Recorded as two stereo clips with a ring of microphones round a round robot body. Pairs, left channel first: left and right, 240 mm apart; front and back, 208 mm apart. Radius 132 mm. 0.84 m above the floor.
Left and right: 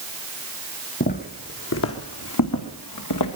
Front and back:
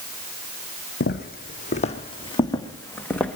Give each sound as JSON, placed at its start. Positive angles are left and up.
{"t": 1.0, "sound": "footsteps", "azimuth_deg": 35, "distance_m": 2.0}